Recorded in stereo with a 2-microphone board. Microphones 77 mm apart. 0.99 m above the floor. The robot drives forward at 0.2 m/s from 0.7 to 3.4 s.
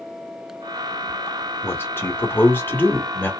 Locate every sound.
1.6 s a man speaking: 30° left (ahead or behind), 1.4 m; by 3.3 s 25° left (ahead or behind), 1.7 m